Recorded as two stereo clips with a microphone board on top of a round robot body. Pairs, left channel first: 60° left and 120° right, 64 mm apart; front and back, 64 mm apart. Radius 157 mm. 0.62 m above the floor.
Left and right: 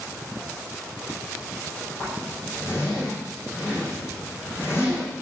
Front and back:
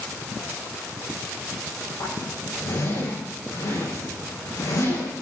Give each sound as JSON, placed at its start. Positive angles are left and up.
{"t": 2.0, "sound": "a zipper", "azimuth_deg": 0, "distance_m": 9.0}